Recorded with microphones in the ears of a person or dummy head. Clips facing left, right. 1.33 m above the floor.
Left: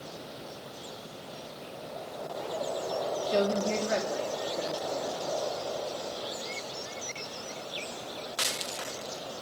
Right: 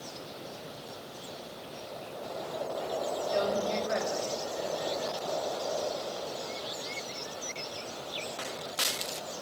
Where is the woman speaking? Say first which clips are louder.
Left 3 dB; 55° left (ahead or behind), 3 m.